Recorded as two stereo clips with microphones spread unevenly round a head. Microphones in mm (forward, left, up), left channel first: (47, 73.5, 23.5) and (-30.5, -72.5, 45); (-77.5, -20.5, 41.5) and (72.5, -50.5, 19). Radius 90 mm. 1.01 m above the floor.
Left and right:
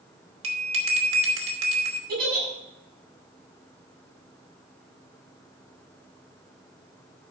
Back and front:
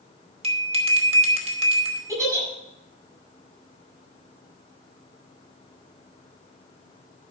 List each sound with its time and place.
0.4 s a bell: 65° right, 2.5 m
2.1 s a giggle: 80° right, 7 m